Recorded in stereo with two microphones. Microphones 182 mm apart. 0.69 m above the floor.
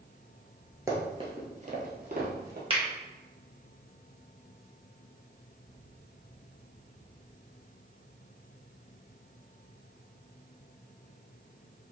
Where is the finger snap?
30° right (ahead or behind), 1.0 m.